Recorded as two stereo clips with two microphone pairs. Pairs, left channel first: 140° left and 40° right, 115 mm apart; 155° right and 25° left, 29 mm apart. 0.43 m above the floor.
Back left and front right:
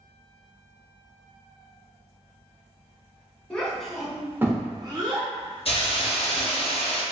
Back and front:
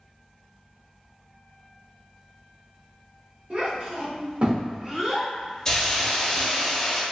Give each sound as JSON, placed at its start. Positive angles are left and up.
{"t": 3.5, "sound": "a child speaking", "azimuth_deg": 55, "distance_m": 1.0}
{"t": 5.7, "sound": "a hiss", "azimuth_deg": 140, "distance_m": 0.6}